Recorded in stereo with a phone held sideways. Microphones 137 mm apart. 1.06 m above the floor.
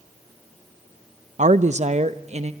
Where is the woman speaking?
60° right (ahead or behind), 0.5 m; by 2.5 s 50° right (ahead or behind), 1.1 m.